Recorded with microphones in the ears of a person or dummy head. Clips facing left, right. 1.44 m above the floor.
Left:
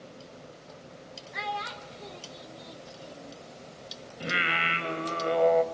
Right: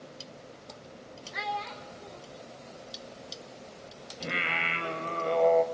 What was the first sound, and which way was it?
A child speaking, 5° right (ahead or behind).